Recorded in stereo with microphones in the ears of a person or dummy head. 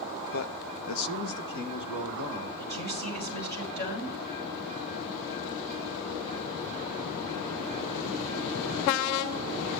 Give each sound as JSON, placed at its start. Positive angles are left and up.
{"t": 0.3, "sound": "a man speaking", "side_deg": 50, "distance_m": 0.8}
{"t": 2.6, "sound": "a woman speaking", "side_deg": 50, "distance_m": 7.0}